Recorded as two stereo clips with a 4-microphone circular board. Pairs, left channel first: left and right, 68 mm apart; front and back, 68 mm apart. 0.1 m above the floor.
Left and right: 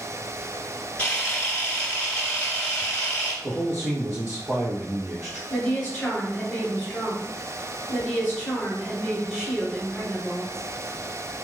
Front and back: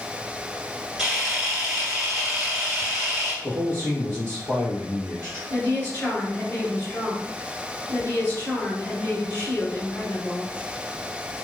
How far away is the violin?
No violin in this recording.